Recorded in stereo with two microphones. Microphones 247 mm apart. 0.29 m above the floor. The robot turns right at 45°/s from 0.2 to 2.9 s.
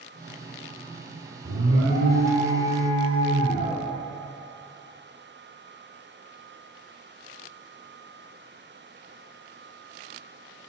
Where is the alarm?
90° right, 2 m; by 3.8 s 20° right, 2 m.